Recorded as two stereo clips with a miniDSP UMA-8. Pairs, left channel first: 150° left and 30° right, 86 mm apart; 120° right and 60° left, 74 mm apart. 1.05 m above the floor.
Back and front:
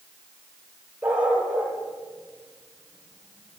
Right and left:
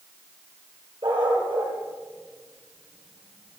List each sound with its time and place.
1.0 s a dog barking: 45° left, 6.5 m; by 3.6 s 30° left, 6 m